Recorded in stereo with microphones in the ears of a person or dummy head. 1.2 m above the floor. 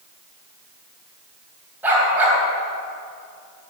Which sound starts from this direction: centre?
A dog barking, at 1.8 s.